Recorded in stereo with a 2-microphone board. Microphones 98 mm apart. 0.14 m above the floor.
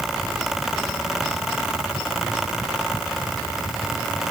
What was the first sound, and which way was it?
Only background noise.